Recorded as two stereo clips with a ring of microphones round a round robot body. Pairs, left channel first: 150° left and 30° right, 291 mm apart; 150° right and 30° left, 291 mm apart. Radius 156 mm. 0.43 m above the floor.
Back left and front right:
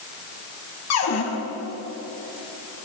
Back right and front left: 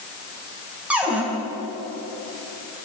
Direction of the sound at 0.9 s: 115° left.